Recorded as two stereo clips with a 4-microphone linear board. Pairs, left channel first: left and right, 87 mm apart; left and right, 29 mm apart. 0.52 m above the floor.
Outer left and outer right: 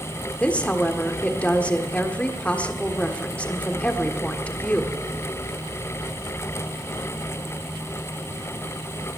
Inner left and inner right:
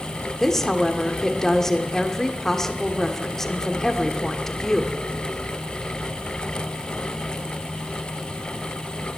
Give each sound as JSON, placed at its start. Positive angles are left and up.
{"t": 0.4, "sound": "a woman speaking", "side_deg": 15, "distance_m": 1.4}